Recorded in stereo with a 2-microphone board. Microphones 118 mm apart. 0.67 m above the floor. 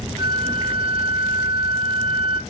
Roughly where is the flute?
Right.